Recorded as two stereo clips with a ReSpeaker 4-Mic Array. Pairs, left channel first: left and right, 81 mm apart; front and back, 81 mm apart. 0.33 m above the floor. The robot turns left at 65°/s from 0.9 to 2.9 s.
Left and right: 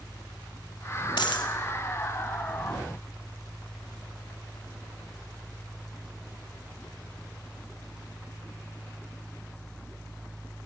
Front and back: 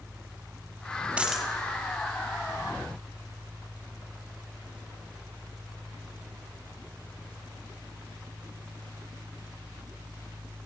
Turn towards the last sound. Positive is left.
turn(degrees=-10)